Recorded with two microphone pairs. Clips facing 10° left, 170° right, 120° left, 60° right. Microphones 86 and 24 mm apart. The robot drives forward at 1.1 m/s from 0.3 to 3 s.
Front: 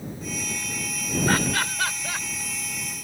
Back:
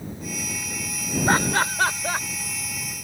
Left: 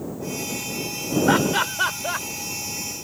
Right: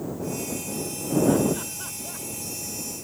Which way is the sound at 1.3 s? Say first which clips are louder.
Back 4 dB, left 6 dB; 125° left.